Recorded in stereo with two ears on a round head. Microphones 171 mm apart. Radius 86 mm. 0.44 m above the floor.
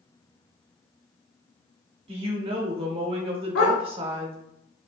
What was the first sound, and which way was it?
A woman speaking, 30° right (ahead or behind).